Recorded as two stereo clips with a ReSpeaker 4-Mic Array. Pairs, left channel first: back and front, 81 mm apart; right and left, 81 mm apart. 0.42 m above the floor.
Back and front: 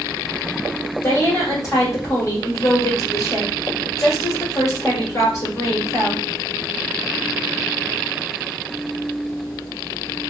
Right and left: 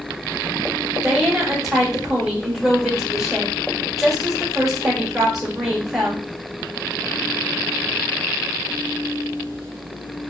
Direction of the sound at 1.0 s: 175° left.